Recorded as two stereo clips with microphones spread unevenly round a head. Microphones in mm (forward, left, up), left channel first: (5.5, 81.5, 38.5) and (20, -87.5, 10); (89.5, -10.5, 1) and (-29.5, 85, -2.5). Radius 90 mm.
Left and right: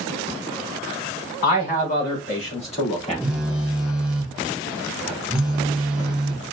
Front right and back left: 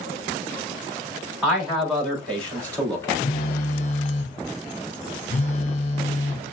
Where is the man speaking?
55° left, 3 m; by 3.2 s 35° left, 2.5 m.